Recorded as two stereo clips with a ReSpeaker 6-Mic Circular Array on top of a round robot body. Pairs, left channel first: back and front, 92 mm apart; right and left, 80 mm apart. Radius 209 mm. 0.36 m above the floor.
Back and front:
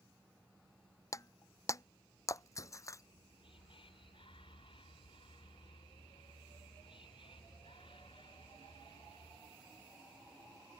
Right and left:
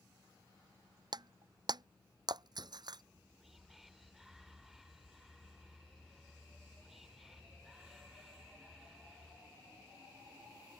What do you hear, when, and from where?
1.1 s breaking glass: 120° left
3.0 s whispering: 175° left